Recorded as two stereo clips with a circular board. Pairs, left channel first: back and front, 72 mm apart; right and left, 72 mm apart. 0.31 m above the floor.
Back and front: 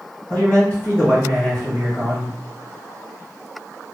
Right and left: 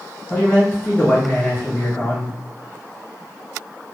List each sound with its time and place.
0.3 s a man speaking: 145° right, 1.9 m